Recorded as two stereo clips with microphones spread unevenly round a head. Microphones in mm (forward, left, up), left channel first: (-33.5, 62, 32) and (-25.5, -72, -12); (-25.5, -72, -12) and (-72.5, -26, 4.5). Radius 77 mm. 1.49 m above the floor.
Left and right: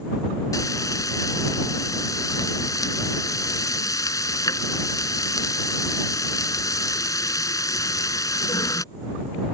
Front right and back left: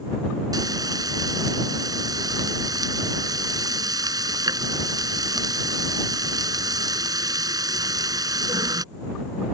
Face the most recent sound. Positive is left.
turn(degrees=160)